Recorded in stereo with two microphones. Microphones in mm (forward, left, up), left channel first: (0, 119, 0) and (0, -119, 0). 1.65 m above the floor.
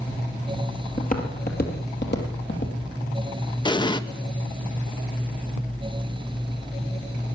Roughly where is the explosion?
Centre.